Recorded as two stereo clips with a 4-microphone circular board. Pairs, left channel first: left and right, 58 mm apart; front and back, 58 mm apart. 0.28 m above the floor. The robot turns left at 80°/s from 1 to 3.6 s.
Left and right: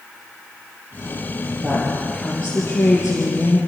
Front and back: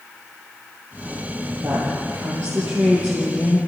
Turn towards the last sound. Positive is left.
turn(degrees=65)